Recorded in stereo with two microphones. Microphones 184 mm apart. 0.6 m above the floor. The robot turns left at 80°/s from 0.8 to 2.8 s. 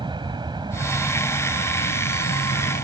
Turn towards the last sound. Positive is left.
turn(degrees=40)  # may be behind; listen again after turning